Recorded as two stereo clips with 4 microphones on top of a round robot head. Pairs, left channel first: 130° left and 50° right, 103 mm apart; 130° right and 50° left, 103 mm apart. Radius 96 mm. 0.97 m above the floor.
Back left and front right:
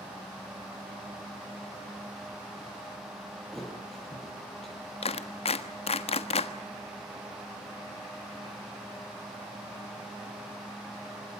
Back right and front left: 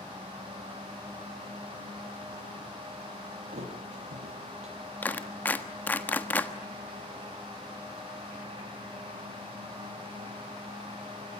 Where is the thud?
45° left, 8 m.